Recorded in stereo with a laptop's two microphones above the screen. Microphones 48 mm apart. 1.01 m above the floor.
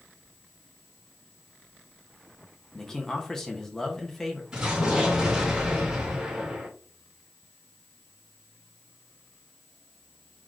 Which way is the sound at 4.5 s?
15° right (ahead or behind).